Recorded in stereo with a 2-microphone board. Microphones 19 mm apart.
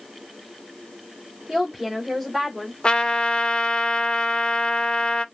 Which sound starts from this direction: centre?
A woman speaking, at 1.5 s.